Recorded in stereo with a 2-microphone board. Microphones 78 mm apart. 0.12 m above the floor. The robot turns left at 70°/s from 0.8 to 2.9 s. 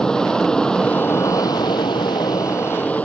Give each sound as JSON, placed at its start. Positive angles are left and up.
{"t": 0.0, "sound": "an aircraft", "side_deg": 10}